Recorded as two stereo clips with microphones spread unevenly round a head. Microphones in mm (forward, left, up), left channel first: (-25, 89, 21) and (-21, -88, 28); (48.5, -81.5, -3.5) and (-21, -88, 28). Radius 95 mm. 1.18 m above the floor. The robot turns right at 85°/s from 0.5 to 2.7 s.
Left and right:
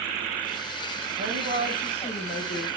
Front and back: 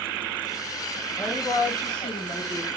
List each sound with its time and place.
1.2 s a woman speaking: 60° right, 0.7 m; by 2.7 s 70° left, 0.7 m